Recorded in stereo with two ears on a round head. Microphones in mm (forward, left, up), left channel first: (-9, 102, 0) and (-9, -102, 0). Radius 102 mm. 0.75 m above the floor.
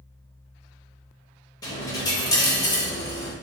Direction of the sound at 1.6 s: 15° left (ahead or behind).